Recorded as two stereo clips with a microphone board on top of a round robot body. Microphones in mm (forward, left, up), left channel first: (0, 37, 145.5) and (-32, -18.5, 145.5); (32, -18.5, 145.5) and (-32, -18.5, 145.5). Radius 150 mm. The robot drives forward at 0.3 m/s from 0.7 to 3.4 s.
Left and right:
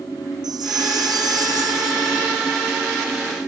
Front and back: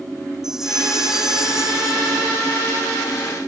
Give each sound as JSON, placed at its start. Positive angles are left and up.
{"t": 0.4, "sound": "a chime", "azimuth_deg": -100}